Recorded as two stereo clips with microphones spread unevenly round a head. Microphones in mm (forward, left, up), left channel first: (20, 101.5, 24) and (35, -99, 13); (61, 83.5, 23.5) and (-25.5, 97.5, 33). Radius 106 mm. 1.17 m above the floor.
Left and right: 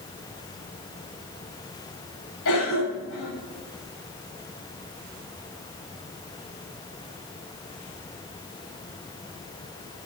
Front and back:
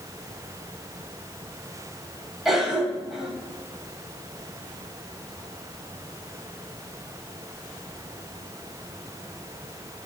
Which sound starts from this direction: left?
A cough, at 2.5 s.